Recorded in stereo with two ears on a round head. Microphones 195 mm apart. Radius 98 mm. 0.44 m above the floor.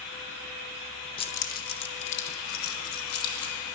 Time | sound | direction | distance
1.2 | keys jangling | 25° left (ahead or behind) | 0.6 m